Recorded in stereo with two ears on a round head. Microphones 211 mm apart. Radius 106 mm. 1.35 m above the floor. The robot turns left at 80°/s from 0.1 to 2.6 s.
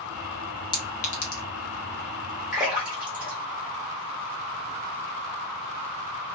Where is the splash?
Centre (ahead or behind), 1.3 m; by 4.7 s 5° right (ahead or behind), 1.3 m.